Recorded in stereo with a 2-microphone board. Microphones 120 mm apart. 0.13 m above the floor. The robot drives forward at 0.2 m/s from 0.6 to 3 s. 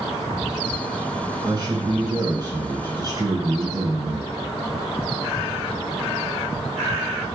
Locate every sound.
1.4 s a man speaking: 35° right (ahead or behind), 1.4 m